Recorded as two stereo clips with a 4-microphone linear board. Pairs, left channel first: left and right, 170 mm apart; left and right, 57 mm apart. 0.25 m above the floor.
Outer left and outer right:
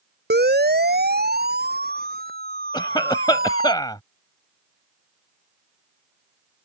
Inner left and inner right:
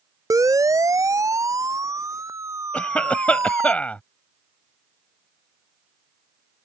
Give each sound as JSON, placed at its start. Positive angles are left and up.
{"t": 0.3, "sound": "a siren", "side_deg": -75}
{"t": 2.7, "sound": "a cough", "side_deg": 25}